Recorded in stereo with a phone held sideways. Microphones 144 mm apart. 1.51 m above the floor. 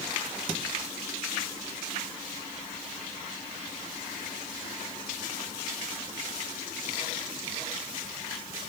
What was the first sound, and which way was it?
Only background noise.